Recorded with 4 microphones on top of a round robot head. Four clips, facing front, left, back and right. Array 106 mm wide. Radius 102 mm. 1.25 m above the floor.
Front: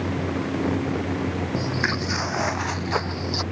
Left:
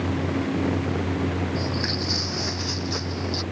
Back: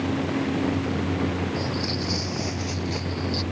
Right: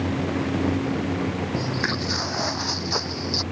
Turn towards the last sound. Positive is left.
turn(degrees=-15)